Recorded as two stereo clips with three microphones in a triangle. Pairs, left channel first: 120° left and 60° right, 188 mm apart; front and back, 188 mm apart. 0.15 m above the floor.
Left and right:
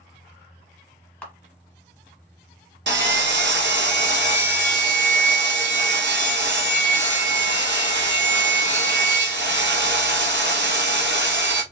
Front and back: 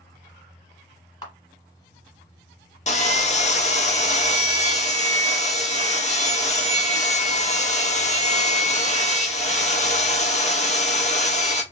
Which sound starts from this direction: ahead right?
Sawing, at 2.9 s.